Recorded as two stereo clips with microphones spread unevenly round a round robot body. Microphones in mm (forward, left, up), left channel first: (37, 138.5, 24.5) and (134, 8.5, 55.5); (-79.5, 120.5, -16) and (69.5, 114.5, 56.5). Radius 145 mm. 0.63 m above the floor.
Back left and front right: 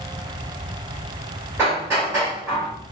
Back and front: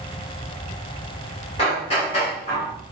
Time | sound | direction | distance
1.6 | hammering | 135° right | 2.5 m